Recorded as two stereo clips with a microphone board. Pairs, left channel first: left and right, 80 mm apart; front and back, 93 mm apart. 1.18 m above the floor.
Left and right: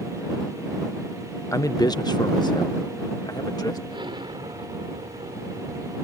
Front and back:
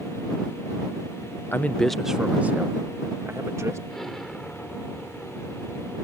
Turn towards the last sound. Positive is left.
turn(degrees=-85)